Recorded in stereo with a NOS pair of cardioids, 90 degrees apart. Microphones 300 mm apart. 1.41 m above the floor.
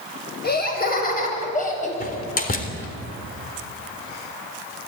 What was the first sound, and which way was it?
Laughter, 30° left.